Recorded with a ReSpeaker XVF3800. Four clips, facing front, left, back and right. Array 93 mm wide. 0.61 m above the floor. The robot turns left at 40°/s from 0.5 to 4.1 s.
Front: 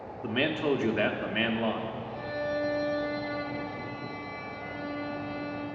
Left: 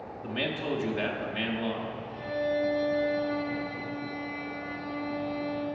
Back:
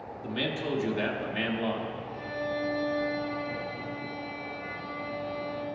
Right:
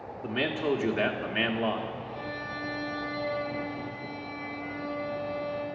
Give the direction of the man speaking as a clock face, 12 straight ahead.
12 o'clock.